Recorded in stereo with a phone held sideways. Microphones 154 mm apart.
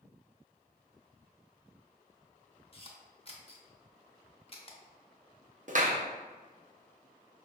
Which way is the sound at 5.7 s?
55° right (ahead or behind).